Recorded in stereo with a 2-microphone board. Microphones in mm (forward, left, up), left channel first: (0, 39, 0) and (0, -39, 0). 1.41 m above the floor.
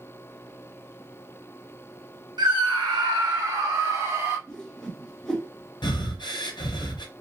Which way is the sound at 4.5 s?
5° left (ahead or behind).